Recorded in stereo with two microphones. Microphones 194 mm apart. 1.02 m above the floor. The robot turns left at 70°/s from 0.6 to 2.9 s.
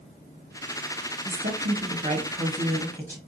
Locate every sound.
1.2 s a woman speaking: 80° right, 1.1 m; by 3.2 s 165° left, 1.1 m